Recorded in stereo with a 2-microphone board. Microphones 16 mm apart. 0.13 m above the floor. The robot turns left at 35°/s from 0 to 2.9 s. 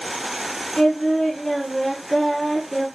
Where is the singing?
20° left (ahead or behind), 1.2 m; by 2.9 s centre (ahead or behind), 1.2 m.